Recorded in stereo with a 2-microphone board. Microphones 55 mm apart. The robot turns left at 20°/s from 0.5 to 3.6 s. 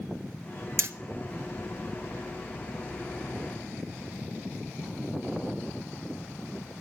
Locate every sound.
0.8 s hammering: 50° right (ahead or behind), 0.6 m; by 0.9 s 45° right (ahead or behind), 0.6 m